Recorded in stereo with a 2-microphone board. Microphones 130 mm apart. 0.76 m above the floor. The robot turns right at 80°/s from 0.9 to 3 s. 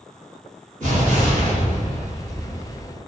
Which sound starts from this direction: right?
An explosion, at 0.8 s.